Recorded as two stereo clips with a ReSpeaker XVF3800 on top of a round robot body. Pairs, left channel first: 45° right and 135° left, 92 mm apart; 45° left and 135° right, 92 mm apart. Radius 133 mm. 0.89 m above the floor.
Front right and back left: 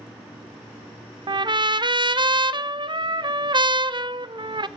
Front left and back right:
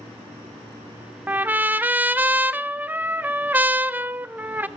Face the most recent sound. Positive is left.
turn(degrees=155)